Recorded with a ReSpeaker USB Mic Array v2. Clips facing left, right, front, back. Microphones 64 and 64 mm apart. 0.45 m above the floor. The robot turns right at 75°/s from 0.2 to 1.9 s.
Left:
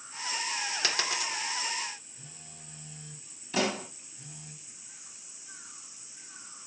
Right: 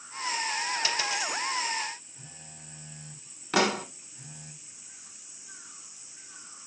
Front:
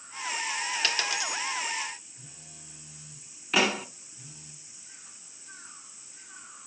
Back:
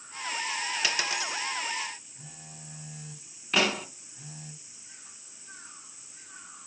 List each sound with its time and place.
0.8 s a dropped coin: 95° left, 2 m; by 1.4 s 140° left, 2 m
2.2 s a phone buzzing: 150° right, 2.5 m
3.5 s a pop: 85° right, 1.1 m